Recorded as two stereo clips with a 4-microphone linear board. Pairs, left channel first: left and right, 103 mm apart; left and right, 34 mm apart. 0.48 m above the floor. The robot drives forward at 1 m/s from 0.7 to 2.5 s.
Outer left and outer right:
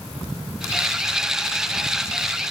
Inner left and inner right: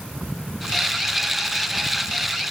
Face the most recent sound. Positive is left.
No sound to turn to.